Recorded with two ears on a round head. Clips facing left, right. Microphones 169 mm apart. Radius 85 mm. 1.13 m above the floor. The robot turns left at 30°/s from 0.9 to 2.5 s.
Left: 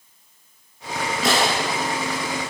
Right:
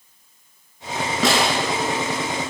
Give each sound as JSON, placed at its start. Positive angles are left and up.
{"t": 1.2, "sound": "a snare drum", "side_deg": -60, "distance_m": 8.5}